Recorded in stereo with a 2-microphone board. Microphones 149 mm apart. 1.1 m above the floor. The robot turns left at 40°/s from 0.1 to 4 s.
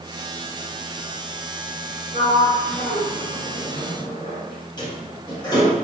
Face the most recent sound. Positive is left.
turn(degrees=30)  # may be behind; listen again after turning